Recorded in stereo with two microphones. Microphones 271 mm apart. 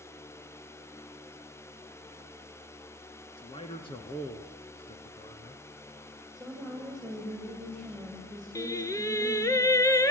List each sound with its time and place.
3.4 s a man speaking: 20° left (ahead or behind), 1.7 m
6.3 s a woman speaking: centre (ahead or behind), 7 m
8.6 s singing: 10° left (ahead or behind), 1.1 m